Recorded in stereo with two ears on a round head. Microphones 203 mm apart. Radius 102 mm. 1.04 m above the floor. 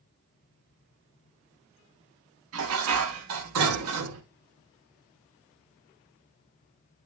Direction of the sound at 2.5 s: 75° right (ahead or behind).